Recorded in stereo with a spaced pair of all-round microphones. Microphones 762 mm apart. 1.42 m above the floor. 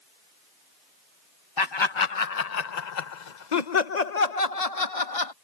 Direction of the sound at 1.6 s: 30° left (ahead or behind).